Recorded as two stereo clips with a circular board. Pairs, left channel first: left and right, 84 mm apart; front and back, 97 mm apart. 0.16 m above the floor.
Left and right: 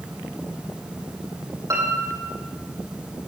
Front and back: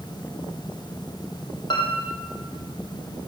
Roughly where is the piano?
Ahead right.